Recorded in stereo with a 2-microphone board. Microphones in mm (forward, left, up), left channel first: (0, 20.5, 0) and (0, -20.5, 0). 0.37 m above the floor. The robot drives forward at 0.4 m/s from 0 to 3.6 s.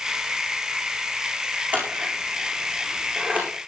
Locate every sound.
1.7 s scissors: 35° right (ahead or behind), 8.5 m; by 3.5 s 40° right (ahead or behind), 8 m